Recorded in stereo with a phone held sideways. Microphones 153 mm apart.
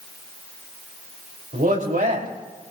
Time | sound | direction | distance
1.5 | a man speaking | 60° right (ahead or behind) | 3.5 m